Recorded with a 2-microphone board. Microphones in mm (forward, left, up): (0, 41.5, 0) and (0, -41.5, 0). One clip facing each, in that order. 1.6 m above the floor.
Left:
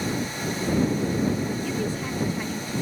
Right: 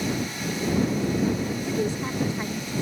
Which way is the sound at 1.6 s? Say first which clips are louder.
Right 1 dB; 25° right (ahead or behind).